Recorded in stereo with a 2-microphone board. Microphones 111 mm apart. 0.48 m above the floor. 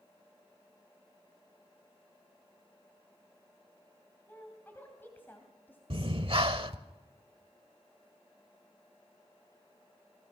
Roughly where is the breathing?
Right.